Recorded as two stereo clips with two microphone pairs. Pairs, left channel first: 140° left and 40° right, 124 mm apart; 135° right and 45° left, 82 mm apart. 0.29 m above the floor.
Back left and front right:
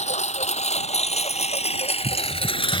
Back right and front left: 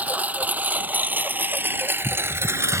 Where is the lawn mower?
115° left; by 2.8 s 95° left.